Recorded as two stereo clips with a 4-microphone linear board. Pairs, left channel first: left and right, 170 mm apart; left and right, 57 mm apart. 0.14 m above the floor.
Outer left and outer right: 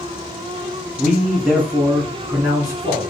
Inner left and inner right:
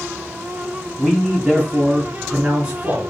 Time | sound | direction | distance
1.0 | a man speaking | centre (ahead or behind) | 1.6 m